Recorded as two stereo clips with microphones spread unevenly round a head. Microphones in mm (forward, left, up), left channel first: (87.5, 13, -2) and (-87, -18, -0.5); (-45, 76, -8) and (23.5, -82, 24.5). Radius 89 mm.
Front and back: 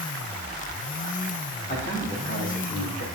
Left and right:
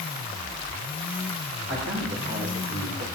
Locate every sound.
1.7 s a man speaking: 35° right, 5 m; by 3.0 s 20° right, 3.5 m